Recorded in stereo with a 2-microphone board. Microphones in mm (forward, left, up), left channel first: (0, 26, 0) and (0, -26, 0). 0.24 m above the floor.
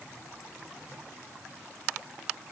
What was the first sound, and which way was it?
Only background noise.